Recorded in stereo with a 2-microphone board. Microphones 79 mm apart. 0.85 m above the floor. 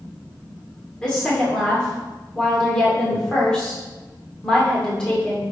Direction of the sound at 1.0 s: 10° left (ahead or behind).